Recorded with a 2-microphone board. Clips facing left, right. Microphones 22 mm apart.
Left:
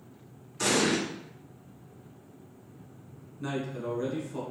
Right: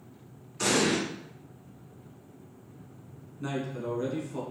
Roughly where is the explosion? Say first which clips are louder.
Even; centre.